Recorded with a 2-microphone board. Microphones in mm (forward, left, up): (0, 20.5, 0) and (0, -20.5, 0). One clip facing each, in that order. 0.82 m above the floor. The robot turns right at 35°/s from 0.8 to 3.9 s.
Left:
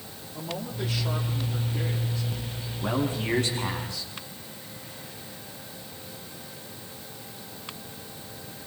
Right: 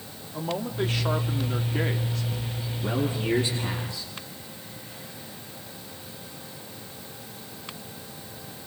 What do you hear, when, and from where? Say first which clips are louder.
0.3 s a man speaking: right 5 dB; 135° right, 2.0 m; by 2.7 s 70° right, 2.0 m
2.8 s a man speaking: even; 70° left, 7 m; by 4.1 s 105° left, 7 m